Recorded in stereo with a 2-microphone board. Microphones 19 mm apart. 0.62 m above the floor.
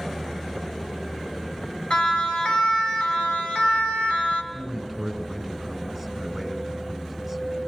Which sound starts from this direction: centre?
A man speaking, at 4.5 s.